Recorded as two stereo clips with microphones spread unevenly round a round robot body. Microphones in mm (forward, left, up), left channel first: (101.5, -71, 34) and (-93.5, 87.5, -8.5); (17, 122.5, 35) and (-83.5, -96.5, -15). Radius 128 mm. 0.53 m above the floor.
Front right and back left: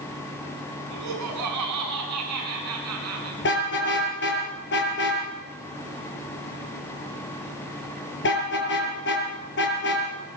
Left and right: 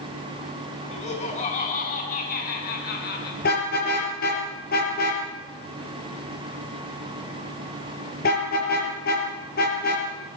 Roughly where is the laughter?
Behind left.